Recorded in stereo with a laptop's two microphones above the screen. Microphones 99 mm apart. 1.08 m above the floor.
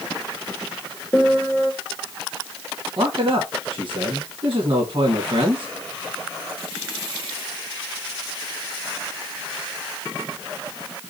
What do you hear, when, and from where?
1.1 s a piano: 10° left (ahead or behind), 1.5 m
3.0 s a man speaking: 55° right (ahead or behind), 1.6 m